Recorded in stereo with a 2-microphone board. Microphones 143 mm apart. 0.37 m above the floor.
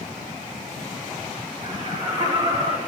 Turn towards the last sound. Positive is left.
turn(degrees=-35)  # may be behind; listen again after turning